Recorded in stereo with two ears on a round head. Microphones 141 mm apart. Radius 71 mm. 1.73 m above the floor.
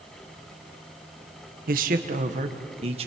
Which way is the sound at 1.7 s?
60° right (ahead or behind).